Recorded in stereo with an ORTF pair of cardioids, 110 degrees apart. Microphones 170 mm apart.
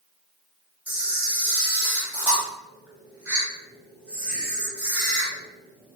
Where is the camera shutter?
10° right, 1.4 m.